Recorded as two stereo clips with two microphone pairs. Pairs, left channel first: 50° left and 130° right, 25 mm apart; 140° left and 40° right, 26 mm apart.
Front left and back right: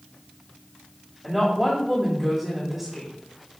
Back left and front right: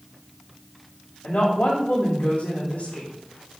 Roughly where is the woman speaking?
Behind left.